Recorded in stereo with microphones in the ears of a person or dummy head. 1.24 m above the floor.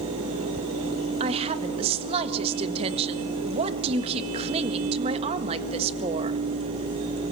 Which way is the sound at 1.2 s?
35° right (ahead or behind).